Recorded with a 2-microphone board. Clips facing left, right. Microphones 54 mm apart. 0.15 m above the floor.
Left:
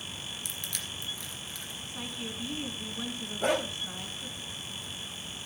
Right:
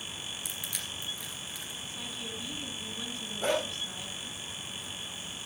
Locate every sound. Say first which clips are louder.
0.5 s crushing: even; 10° right (ahead or behind), 2.5 m
1.9 s a woman speaking: left 3 dB; 15° left (ahead or behind), 1.8 m
3.4 s a dog barking: left 1 dB; 5° left (ahead or behind), 3 m